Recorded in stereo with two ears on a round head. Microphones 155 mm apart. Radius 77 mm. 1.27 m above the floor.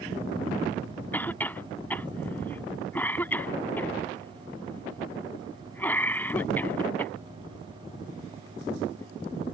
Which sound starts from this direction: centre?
A cough, at 1.1 s.